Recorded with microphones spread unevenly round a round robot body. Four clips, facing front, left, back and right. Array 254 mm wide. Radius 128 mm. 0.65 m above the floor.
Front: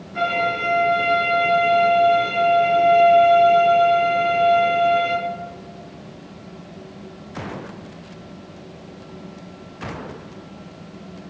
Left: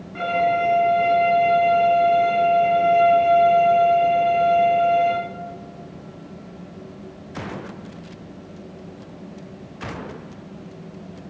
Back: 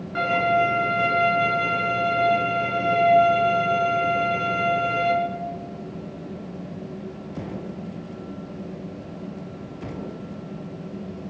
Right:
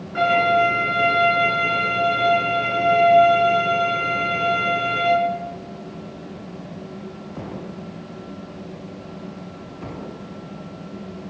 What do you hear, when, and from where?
0.1 s a violin: 140° right, 8 m